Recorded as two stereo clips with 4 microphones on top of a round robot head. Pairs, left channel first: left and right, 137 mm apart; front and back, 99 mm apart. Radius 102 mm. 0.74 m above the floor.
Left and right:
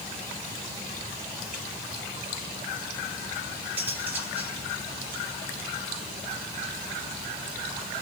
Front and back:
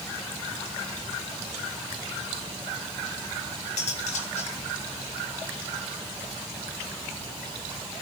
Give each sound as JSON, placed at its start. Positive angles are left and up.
{"t": 3.8, "sound": "cutlery clinking", "azimuth_deg": -10, "distance_m": 3.5}